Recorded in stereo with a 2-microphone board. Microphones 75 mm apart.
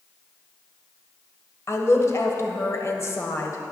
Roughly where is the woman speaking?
Left.